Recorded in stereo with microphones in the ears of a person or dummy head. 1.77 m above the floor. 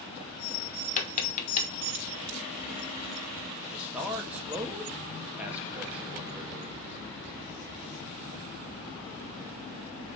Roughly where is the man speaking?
Centre.